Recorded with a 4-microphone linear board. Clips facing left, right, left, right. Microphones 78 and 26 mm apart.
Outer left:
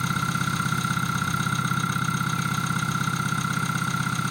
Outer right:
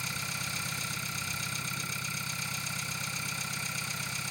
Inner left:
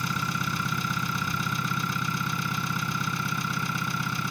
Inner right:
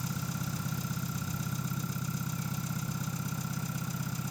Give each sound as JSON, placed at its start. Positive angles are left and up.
{"t": 0.0, "sound": "an engine running", "side_deg": 55}